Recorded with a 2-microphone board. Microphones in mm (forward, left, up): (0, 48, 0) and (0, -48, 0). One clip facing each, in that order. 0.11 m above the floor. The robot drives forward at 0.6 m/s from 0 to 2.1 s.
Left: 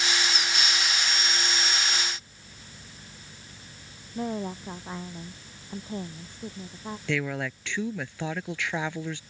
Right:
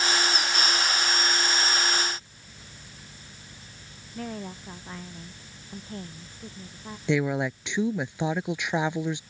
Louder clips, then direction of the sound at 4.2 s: Left 5 dB; 20° left (ahead or behind).